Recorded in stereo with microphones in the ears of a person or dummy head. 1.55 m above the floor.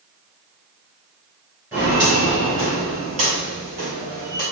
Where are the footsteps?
10° right (ahead or behind), 1.9 m; by 4.4 s 40° right (ahead or behind), 3 m.